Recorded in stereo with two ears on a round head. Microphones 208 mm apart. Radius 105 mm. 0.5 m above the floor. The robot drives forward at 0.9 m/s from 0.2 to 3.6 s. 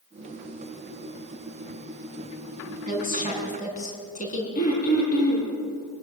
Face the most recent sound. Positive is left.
turn(degrees=45)  # may be behind; listen again after turning